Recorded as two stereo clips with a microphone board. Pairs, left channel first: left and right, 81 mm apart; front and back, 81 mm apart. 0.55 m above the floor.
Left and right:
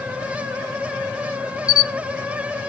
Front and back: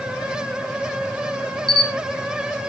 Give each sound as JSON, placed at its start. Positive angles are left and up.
{"t": 1.7, "sound": "a camera shutter", "azimuth_deg": -165, "distance_m": 1.0}